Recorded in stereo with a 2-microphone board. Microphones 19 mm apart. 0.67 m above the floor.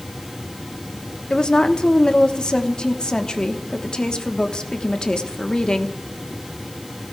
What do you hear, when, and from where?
1.3 s a woman speaking: 50° left (ahead or behind), 1.1 m